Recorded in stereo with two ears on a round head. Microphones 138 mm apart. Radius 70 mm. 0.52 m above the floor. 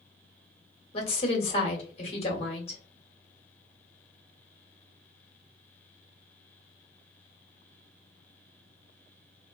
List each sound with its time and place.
0.9 s a woman speaking: 40° left (ahead or behind), 1.3 m